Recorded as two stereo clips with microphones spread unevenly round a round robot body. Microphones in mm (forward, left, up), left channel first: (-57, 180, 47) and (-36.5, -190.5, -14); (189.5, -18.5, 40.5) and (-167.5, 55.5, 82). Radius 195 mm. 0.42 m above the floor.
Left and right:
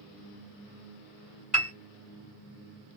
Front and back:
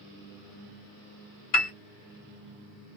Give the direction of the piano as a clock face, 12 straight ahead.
12 o'clock.